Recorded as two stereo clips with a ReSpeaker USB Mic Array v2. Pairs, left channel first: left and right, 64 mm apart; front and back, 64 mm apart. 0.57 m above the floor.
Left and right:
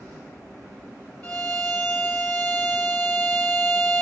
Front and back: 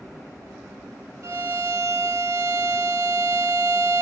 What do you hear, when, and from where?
1.2 s a violin: 150° left, 1.5 m